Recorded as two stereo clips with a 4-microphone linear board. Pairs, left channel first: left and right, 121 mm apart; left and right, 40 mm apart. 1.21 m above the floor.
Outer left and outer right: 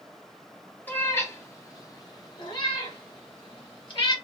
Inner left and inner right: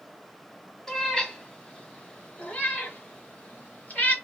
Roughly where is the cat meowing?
Centre.